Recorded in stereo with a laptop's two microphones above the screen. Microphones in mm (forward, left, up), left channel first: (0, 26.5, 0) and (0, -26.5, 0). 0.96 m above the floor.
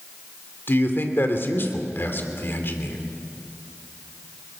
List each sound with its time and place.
0.7 s a man speaking: 50° left (ahead or behind), 2.5 m